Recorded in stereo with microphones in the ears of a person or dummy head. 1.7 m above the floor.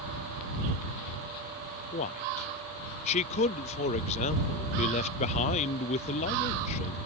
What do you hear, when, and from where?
1.9 s a man speaking: 40° left (ahead or behind)